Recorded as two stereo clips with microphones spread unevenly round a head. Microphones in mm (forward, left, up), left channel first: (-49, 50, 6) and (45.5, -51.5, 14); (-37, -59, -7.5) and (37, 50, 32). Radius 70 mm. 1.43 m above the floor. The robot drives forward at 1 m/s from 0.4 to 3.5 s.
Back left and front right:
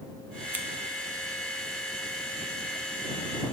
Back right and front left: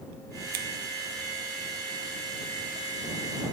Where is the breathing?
I don't hear breathing.